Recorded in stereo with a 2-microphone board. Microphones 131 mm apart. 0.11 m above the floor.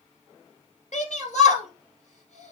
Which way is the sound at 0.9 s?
65° left (ahead or behind).